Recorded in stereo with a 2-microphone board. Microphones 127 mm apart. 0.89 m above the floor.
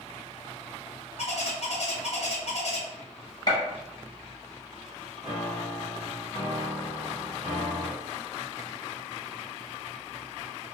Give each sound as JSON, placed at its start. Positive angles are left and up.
{"t": 1.2, "sound": "a bird", "side_deg": 55, "distance_m": 0.5}
{"t": 3.5, "sound": "a gunshot", "side_deg": 35, "distance_m": 0.8}
{"t": 5.2, "sound": "a piano", "side_deg": -35, "distance_m": 1.3}